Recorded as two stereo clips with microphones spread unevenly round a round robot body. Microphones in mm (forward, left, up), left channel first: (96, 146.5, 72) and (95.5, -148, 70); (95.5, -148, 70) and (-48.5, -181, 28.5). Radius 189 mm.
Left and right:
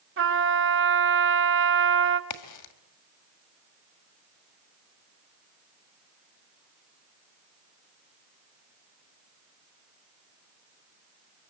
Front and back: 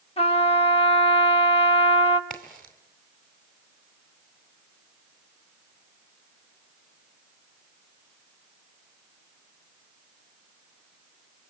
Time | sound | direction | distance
0.2 | a trumpet | 45° right | 1.5 m
2.3 | a crack | 105° left | 2 m